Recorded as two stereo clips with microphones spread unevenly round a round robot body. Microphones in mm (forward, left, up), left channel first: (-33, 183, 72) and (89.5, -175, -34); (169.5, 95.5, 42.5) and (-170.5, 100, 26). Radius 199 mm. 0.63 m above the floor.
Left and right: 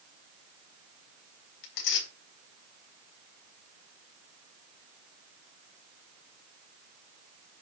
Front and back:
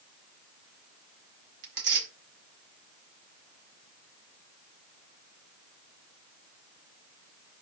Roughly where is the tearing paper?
Behind left.